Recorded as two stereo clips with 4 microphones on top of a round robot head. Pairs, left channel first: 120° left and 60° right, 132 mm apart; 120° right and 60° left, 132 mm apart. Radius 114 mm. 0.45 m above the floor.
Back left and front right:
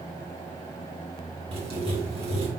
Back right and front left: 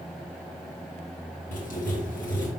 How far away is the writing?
About 3 m.